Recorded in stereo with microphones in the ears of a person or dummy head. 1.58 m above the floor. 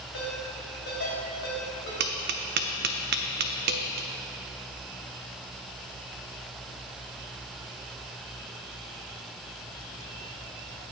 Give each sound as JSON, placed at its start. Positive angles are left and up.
{"t": 0.1, "sound": "a ringtone", "side_deg": 60, "distance_m": 3.5}
{"t": 2.0, "sound": "tapping", "side_deg": -55, "distance_m": 0.5}